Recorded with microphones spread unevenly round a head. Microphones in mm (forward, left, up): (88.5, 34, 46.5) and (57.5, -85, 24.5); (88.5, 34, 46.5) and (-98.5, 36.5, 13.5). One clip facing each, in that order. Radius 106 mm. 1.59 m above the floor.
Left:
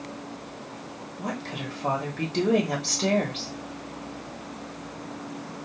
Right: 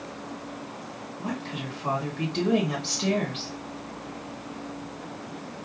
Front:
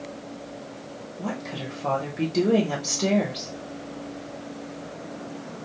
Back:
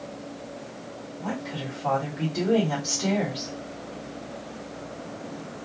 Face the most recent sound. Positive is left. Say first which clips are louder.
# even, front 1 dB
turn(degrees=40)